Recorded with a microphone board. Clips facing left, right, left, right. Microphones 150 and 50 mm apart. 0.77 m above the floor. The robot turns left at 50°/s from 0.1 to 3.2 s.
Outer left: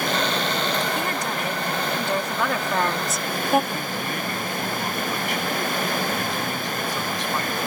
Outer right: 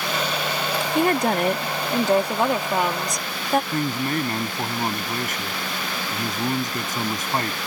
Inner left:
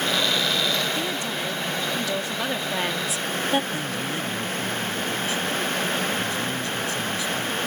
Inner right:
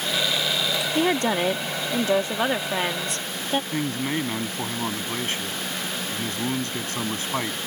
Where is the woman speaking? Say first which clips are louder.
Outer right 7 dB, inner right 6 dB; 75° right; by 3.6 s 170° left.